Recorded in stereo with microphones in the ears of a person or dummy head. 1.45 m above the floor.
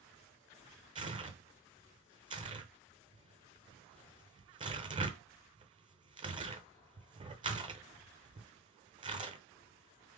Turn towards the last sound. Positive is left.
turn(degrees=-25)  # may be behind; listen again after turning